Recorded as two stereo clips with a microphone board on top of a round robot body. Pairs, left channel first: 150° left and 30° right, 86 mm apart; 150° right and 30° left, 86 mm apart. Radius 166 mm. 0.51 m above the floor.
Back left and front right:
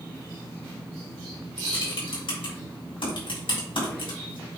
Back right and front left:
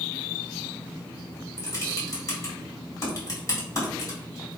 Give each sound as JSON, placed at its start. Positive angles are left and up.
{"t": 1.6, "sound": "typing on a keyboard", "azimuth_deg": 155, "distance_m": 4.0}